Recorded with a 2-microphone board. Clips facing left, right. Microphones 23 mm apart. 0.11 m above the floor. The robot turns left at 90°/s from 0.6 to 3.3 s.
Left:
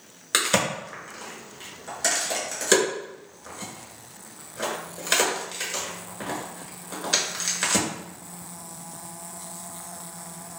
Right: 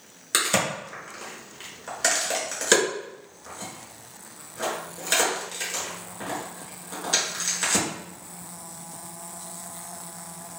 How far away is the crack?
About 1.1 m.